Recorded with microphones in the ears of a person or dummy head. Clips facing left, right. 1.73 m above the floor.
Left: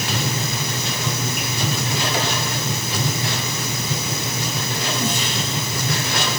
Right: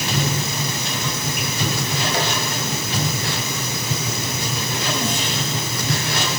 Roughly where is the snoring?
No snoring in this recording.